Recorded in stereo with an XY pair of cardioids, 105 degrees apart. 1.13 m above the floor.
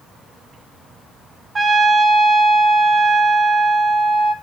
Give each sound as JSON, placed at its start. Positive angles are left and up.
{"t": 1.6, "sound": "a trumpet", "azimuth_deg": -30, "distance_m": 1.1}